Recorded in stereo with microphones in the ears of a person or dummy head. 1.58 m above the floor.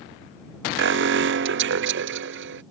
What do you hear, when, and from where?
0.8 s an alarm: 55° right (ahead or behind)